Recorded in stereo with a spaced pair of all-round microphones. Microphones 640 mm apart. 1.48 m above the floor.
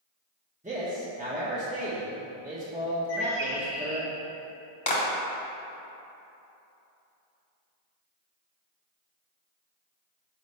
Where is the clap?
65° left (ahead or behind), 1.2 m.